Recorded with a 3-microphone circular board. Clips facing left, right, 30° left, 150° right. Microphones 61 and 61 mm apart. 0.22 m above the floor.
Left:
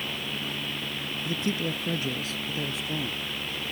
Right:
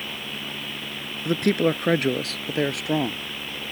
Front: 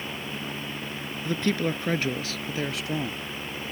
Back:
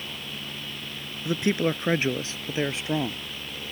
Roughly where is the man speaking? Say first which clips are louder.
Right 10 dB, back 2 dB; right.